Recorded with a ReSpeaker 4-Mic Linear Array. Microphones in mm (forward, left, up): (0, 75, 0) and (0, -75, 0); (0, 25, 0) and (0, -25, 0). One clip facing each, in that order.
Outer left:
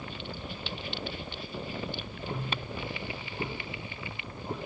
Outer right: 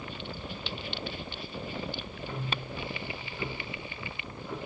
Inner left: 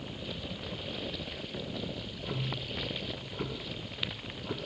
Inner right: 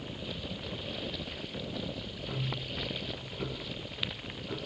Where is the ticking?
40° left (ahead or behind), 8.5 m.